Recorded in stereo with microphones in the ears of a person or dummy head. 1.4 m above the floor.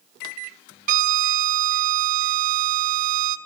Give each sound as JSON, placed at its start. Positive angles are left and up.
{"t": 0.9, "sound": "a violin", "side_deg": -40, "distance_m": 0.7}